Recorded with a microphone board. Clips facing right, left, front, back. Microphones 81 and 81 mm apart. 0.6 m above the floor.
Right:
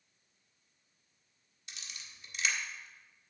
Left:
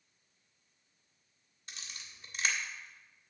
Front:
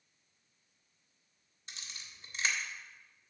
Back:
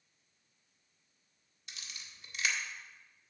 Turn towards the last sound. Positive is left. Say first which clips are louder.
# left 1 dB, even
turn(degrees=50)